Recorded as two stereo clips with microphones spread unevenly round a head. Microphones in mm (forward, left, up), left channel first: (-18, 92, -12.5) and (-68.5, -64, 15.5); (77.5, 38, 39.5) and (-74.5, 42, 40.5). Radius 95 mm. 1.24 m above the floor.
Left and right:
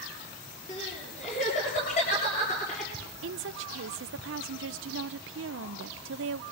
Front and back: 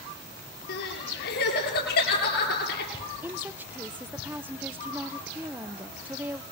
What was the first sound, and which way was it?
Crying, 15° left.